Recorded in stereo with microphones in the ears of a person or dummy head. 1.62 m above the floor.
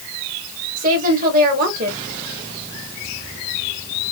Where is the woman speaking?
45° right (ahead or behind), 1.2 m.